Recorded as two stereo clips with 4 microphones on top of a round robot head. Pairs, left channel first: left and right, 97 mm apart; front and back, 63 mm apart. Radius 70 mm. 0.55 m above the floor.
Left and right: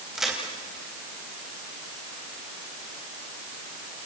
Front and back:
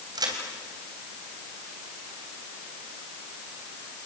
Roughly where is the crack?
Behind.